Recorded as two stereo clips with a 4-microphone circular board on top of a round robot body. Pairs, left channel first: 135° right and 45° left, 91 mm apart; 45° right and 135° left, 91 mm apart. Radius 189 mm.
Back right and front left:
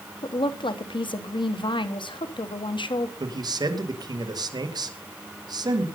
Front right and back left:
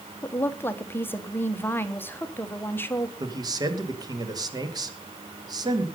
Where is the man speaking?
90° left, 2.5 m.